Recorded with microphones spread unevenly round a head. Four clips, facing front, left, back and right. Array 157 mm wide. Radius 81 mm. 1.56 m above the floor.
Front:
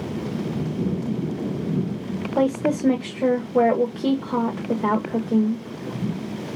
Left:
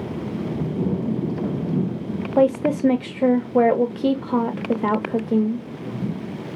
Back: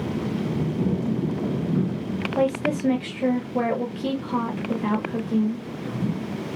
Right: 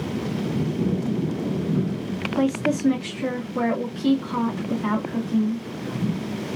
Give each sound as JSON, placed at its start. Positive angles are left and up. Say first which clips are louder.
{"t": 2.4, "sound": "a woman speaking", "louder": "left 5 dB, front 2 dB", "azimuth_deg": 65, "distance_m": 0.7}